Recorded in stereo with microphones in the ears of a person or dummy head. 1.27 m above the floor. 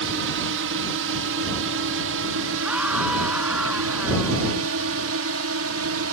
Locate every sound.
0.0 s a drone: 60° right (ahead or behind); by 6.1 s 65° right (ahead or behind)
2.6 s a scream: 5° right (ahead or behind)